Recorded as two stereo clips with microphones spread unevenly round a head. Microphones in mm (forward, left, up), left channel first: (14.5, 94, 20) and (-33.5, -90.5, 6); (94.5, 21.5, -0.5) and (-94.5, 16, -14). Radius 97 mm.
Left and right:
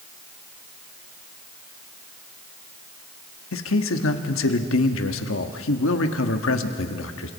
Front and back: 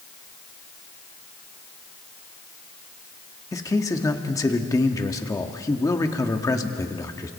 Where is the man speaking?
75° left, 1.6 m.